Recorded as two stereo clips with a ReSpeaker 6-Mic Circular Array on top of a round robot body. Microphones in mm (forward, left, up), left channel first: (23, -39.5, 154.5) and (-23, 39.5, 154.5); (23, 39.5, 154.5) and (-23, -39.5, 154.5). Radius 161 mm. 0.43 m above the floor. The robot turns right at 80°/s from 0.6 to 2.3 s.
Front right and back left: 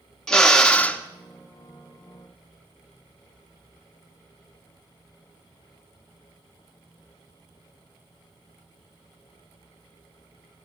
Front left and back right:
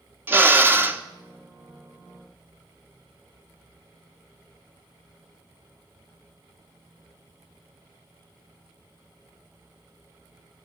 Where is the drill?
130° right, 1.4 m; by 1.0 s 95° right, 1.4 m.